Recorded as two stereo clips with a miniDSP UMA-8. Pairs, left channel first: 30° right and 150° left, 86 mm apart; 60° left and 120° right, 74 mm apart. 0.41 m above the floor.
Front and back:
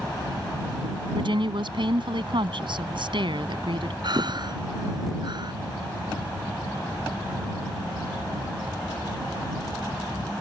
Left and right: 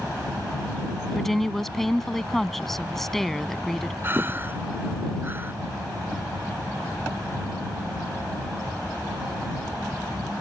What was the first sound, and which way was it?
A woman speaking, 145° left.